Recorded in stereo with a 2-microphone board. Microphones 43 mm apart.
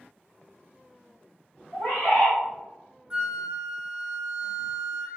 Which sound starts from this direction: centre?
A flute, at 3.1 s.